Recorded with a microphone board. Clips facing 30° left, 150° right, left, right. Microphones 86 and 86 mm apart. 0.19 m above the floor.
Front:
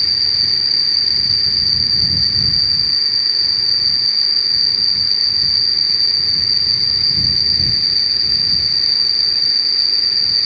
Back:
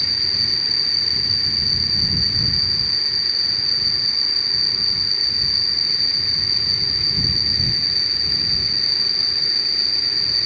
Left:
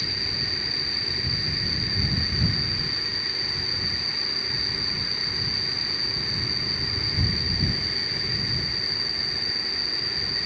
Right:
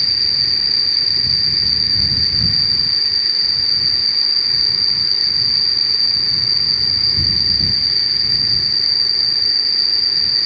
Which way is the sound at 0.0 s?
95° right.